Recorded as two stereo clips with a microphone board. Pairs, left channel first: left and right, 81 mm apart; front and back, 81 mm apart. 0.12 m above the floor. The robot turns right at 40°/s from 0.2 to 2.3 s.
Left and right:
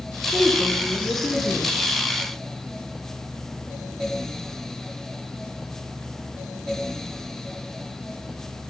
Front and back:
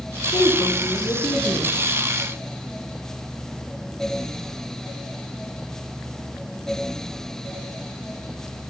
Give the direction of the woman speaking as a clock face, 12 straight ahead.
12 o'clock.